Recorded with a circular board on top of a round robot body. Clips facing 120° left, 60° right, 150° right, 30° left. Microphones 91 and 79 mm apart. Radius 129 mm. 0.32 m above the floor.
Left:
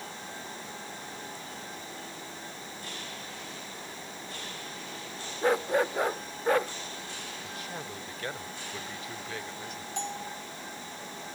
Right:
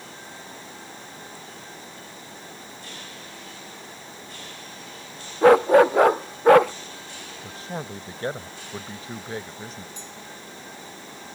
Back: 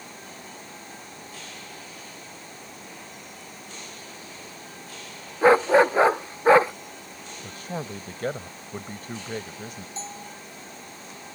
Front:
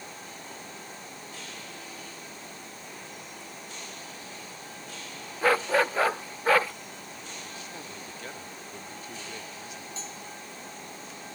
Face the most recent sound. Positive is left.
turn(degrees=150)